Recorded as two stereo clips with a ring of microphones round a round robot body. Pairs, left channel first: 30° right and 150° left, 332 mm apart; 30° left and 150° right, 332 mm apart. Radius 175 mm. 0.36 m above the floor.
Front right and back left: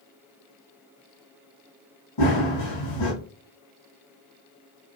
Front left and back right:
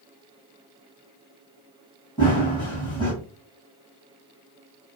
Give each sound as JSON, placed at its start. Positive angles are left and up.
{"t": 2.2, "sound": "running footsteps", "azimuth_deg": -35, "distance_m": 1.3}